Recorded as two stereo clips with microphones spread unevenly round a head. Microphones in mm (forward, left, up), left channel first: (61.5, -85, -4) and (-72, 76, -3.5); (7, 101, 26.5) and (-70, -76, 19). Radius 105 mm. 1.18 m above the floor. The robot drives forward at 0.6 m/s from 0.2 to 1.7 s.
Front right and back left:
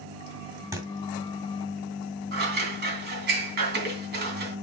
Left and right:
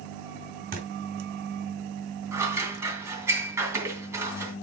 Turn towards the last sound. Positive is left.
turn(degrees=170)